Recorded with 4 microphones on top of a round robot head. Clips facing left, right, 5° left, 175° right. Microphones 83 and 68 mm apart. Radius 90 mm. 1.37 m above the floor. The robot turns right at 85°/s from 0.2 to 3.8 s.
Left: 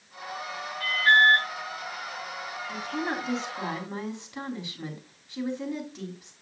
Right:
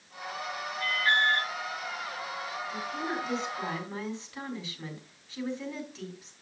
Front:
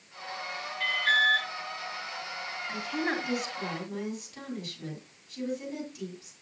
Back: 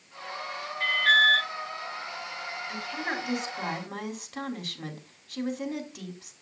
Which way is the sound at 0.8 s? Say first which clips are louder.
Left 6 dB, back 4 dB; 130° left.